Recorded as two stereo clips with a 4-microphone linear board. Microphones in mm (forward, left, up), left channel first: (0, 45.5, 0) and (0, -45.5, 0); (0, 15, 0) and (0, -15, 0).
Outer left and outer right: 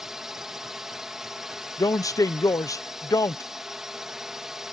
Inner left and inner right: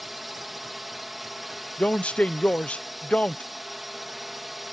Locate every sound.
0.0 s a drone: 5° right (ahead or behind)
1.8 s a man speaking: 40° left (ahead or behind)